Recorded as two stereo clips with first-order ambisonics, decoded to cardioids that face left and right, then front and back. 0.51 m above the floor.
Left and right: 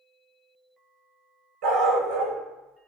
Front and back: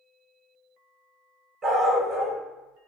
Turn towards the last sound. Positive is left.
turn(degrees=-110)